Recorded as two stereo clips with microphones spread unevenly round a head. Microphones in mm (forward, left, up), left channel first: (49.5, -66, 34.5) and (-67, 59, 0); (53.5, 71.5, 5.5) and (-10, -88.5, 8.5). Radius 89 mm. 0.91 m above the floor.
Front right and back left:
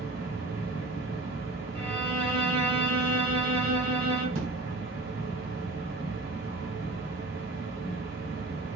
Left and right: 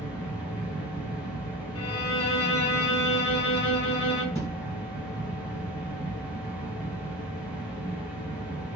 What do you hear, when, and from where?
0.0 s a machine running: 165° left, 2 m
1.8 s a violin: 20° left, 1.0 m
4.3 s a thud: 145° left, 2.5 m